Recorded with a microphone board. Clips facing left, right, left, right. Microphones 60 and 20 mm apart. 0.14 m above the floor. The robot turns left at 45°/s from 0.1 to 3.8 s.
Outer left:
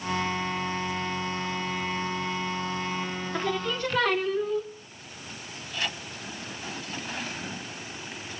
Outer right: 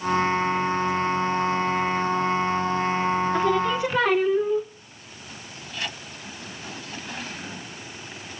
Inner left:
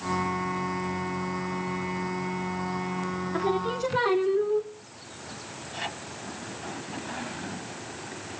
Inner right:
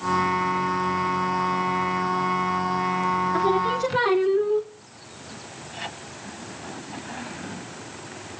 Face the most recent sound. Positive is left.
turn(degrees=-15)  # may be behind; listen again after turning